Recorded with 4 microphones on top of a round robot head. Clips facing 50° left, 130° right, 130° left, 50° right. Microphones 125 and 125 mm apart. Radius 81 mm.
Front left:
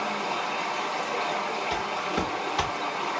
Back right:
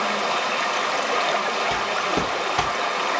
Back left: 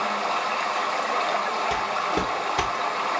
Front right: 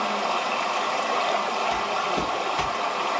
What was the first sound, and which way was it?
Running water, 130° right.